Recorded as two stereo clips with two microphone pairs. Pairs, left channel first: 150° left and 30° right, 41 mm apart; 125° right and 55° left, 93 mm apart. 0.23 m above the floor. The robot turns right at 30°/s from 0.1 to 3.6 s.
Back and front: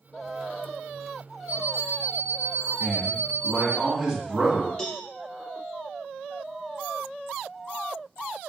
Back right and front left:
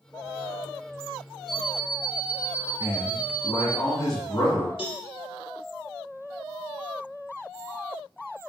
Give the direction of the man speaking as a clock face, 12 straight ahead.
4 o'clock.